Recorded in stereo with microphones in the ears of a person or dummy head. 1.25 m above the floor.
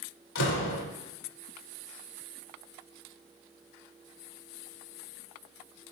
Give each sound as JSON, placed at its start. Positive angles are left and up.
{"t": 0.3, "sound": "a door slam", "side_deg": 85, "distance_m": 3.0}